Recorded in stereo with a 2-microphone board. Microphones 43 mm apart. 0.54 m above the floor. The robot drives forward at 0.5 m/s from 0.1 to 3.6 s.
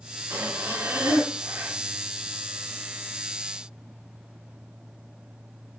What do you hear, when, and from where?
0.3 s breathing: 65° right (ahead or behind), 2 m; by 1.8 s 50° right (ahead or behind), 2.5 m